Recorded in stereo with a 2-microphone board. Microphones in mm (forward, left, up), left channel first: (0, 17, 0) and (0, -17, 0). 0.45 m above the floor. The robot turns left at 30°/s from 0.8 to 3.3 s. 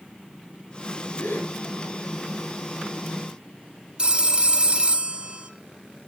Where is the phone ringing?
30° right (ahead or behind), 1.0 m.